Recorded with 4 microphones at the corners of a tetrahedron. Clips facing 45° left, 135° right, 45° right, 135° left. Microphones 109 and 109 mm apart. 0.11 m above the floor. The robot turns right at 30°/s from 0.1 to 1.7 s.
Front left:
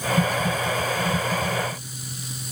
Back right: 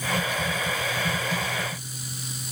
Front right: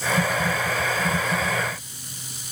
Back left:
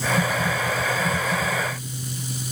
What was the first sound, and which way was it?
Only background noise.